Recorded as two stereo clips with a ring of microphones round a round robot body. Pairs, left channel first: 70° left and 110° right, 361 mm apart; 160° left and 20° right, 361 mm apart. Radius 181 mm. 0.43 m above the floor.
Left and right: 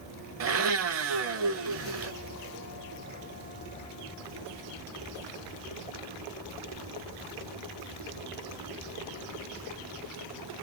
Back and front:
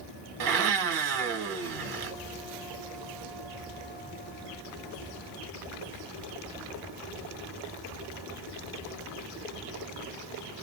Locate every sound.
0.4 s a blender: 60° right, 0.9 m